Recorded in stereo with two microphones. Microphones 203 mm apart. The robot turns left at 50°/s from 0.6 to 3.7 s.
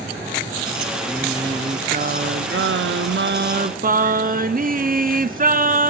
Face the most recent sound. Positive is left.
turn(degrees=-135)